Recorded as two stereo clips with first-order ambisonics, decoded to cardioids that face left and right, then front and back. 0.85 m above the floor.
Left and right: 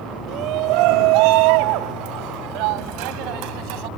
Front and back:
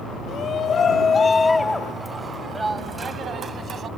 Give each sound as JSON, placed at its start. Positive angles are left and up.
{"t": 0.3, "sound": "a shout", "azimuth_deg": -55}